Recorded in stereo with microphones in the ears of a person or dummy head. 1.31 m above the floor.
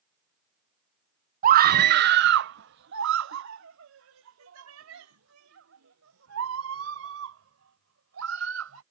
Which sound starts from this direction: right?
A scream, at 1.4 s.